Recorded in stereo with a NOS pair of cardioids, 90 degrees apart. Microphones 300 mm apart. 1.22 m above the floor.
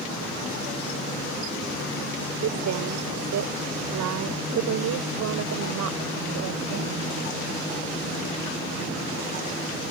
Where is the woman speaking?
70° right; by 7.2 s 75° right.